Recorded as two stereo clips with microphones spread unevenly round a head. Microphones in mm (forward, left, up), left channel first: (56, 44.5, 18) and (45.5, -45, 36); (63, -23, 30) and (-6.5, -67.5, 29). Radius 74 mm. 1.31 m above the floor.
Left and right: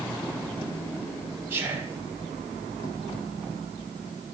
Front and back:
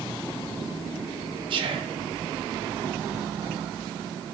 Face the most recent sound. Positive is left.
turn(degrees=-170)